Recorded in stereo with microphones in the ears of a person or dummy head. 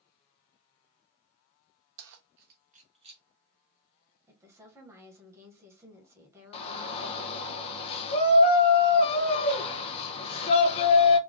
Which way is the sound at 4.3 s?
15° right (ahead or behind).